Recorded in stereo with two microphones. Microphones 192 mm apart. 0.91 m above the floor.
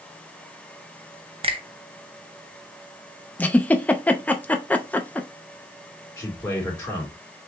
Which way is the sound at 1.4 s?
30° right (ahead or behind).